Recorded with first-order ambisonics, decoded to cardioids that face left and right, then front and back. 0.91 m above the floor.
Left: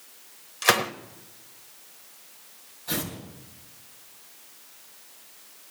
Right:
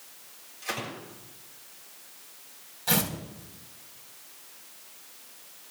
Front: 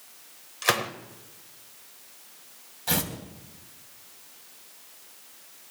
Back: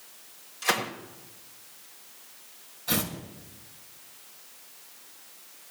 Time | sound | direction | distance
0.6 | a gunshot | 65° left | 1.6 m
2.9 | tearing paper | 45° right | 4.5 m